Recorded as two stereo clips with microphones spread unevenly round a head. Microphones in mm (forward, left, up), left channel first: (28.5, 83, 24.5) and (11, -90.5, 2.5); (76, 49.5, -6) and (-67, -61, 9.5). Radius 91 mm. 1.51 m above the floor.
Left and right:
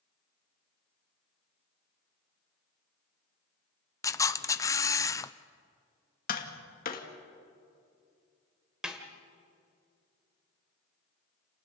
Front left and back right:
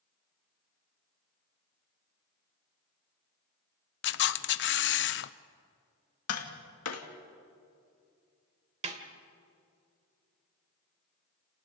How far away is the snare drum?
About 1.9 m.